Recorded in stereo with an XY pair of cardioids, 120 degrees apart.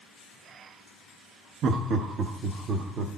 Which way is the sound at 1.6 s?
55° right.